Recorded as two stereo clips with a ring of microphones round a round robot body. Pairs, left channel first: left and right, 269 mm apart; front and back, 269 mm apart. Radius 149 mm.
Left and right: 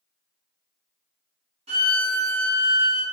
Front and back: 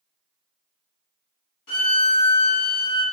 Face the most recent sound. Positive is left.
turn(degrees=-20)